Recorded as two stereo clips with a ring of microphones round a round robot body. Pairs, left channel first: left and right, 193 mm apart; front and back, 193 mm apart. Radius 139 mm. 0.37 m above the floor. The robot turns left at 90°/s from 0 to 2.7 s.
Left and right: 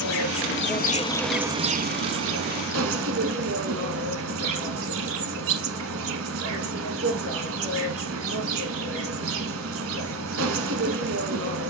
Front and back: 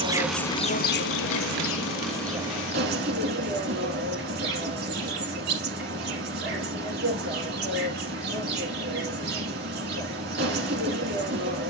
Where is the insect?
120° left, 1.0 m; by 11.7 s 125° right, 1.0 m.